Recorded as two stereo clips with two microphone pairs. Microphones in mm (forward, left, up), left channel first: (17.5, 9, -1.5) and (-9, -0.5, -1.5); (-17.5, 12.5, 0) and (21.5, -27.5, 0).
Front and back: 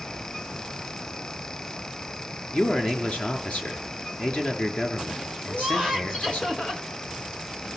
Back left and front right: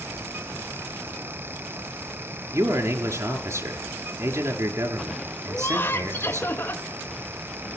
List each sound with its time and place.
2.5 s a man speaking: 15° right, 5.5 m
5.5 s laughter: 95° left, 2.5 m